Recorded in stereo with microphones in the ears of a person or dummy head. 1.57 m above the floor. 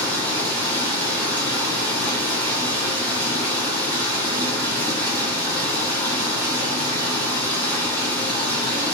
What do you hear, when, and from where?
0.0 s running water: 20° left (ahead or behind), 1.2 m